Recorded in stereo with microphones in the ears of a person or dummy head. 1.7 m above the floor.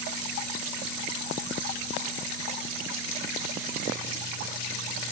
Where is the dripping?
No dripping in this recording.